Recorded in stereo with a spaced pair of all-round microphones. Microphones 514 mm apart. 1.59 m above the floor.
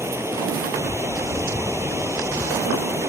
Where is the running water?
5° right (ahead or behind).